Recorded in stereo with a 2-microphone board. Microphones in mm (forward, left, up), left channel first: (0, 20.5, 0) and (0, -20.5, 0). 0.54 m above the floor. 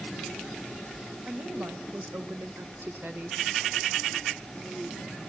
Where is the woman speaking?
55° right (ahead or behind), 2.5 m; by 3.4 s 50° right (ahead or behind), 1.4 m.